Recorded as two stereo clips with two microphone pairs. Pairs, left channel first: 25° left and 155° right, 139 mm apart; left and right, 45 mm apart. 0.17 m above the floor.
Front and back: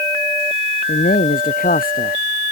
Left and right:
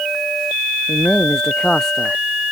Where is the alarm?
No alarm in this recording.